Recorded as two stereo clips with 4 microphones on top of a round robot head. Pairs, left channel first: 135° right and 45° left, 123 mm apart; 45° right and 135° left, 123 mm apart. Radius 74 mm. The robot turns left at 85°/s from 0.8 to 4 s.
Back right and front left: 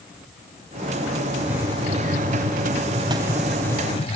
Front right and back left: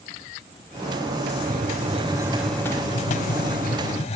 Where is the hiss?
135° left, 1.6 m; by 4.2 s 85° right, 1.6 m.